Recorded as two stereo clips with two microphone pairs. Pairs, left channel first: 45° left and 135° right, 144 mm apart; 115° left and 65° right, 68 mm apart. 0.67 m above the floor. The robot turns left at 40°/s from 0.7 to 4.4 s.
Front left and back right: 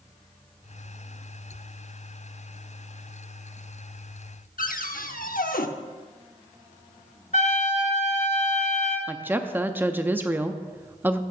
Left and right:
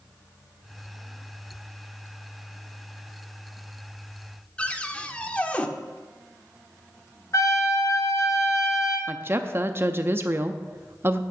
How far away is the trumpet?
About 1.8 m.